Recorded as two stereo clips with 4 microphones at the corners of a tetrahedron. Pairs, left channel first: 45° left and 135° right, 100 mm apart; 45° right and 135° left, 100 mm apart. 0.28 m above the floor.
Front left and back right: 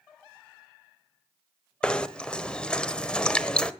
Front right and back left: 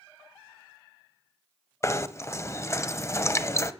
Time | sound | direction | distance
1.8 | knocking | 25° right | 1.0 m